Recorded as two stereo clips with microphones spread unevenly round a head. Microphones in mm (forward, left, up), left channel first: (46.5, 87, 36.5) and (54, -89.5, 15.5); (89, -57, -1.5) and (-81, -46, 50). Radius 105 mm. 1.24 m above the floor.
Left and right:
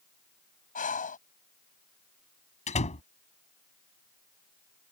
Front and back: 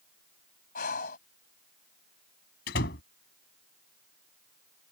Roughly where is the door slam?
Ahead left.